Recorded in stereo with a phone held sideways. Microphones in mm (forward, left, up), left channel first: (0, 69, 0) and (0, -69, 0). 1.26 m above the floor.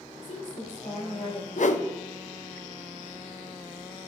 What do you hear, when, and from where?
0.2 s a woman speaking: 75° left (ahead or behind), 3.5 m
1.6 s a whoosh: 60° left (ahead or behind), 0.6 m